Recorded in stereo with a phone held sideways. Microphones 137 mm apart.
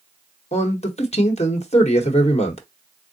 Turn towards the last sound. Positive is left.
turn(degrees=55)  # may be behind; listen again after turning